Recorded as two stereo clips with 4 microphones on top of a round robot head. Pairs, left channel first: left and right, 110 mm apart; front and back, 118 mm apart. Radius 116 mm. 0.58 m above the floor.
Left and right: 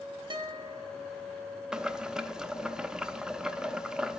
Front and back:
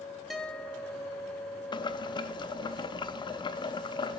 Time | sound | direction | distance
0.3 | a guitar | 90° right | 0.9 m
1.7 | boiling | 10° right | 0.6 m